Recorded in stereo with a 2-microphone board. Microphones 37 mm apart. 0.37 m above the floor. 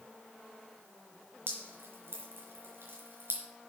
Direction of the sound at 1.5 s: 75° right (ahead or behind).